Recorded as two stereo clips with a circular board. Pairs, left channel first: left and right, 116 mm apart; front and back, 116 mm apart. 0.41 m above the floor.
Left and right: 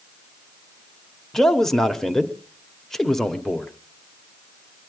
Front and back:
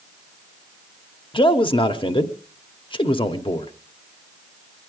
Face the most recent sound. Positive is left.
turn(degrees=5)